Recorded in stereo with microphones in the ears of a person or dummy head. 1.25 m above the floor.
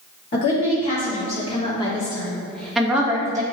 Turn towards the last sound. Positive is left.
turn(degrees=-20)  # may be behind; listen again after turning